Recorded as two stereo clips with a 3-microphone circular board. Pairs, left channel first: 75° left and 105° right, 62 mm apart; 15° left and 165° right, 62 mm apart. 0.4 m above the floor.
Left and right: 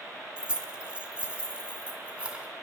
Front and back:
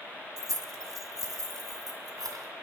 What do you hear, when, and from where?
0.4 s keys jangling: 175° right, 1.5 m